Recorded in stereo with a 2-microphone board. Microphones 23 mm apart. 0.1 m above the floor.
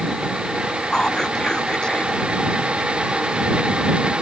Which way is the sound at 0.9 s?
35° left (ahead or behind).